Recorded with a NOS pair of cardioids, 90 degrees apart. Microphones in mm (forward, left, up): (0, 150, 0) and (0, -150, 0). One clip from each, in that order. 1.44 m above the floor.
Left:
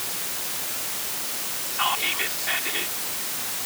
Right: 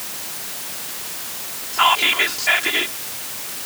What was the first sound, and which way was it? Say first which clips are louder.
Whispering: right 9 dB; 65° right.